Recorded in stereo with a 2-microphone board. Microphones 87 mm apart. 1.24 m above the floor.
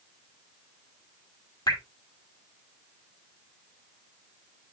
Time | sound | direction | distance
1.7 | dripping | 50° left (ahead or behind) | 2.5 m